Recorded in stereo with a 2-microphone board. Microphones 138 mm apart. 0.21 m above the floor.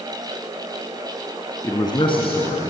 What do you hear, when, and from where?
1.6 s a man speaking: 25° left (ahead or behind), 2.5 m; by 2.7 s 55° left (ahead or behind), 3 m